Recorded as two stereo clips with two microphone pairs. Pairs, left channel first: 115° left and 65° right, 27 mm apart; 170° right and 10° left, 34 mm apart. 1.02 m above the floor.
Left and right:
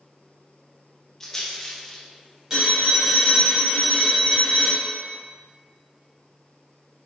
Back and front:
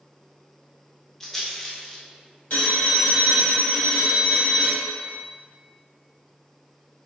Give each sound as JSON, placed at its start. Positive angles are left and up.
{"t": 1.2, "sound": "a rattle", "azimuth_deg": 155, "distance_m": 0.7}
{"t": 2.5, "sound": "a phone ringing", "azimuth_deg": -135, "distance_m": 1.9}